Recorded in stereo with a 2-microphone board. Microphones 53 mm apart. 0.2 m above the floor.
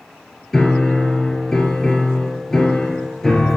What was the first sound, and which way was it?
A piano, 5° left (ahead or behind).